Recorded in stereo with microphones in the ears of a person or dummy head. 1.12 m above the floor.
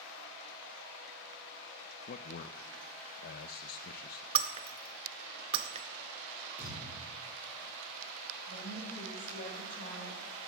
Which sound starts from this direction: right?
Breaking glass, at 4.3 s.